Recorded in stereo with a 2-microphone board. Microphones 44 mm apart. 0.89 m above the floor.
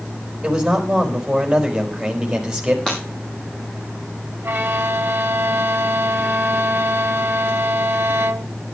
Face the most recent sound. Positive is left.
turn(degrees=-55)  # may be behind; listen again after turning